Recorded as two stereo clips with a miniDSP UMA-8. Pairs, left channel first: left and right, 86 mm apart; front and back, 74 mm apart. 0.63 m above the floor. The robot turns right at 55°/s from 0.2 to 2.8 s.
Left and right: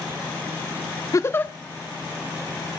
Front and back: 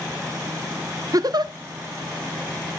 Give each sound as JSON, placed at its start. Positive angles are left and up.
{"t": 1.1, "sound": "a giggle", "azimuth_deg": 140, "distance_m": 0.6}